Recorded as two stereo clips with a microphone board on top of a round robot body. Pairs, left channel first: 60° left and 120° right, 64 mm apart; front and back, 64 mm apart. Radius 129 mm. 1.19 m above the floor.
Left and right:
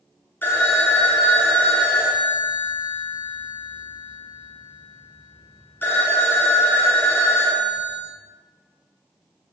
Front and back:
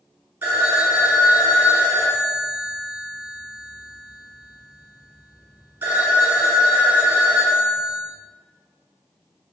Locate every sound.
0.4 s a phone ringing: 120° left, 0.8 m